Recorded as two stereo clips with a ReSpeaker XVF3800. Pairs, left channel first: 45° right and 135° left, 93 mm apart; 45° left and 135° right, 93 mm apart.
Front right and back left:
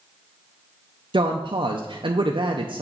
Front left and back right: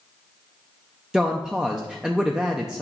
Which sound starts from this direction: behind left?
A woman speaking, at 1.1 s.